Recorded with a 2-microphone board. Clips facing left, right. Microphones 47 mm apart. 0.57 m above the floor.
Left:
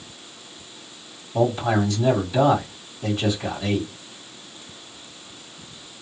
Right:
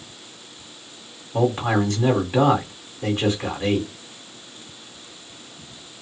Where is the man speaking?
50° right (ahead or behind), 1.9 m.